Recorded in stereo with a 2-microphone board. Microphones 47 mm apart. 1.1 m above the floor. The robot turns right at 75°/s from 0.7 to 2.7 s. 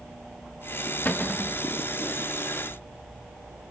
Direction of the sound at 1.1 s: 140° left.